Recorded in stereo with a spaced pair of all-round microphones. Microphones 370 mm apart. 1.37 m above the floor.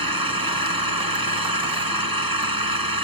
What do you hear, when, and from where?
0.0 s an engine running: 70° right (ahead or behind)